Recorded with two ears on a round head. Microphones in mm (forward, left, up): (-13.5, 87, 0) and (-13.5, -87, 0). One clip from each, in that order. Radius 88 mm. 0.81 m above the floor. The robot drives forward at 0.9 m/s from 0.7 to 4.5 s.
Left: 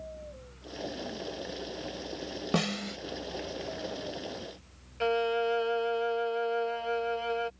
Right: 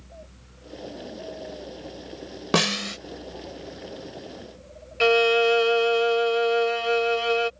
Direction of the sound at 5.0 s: 70° right (ahead or behind).